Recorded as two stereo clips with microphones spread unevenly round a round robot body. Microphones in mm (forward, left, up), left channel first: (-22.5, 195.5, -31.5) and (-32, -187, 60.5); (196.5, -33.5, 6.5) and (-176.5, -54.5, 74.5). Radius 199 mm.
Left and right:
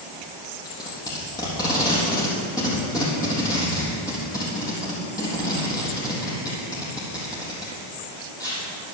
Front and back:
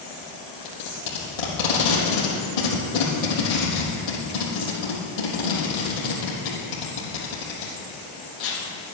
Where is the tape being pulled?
5° left, 4.5 m.